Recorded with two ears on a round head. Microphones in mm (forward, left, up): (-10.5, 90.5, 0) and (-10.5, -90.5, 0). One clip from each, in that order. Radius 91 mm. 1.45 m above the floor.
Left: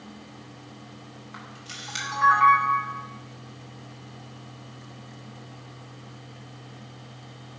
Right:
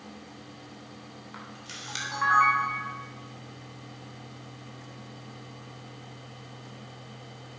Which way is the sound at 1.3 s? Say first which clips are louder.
Left 2 dB; 10° right (ahead or behind).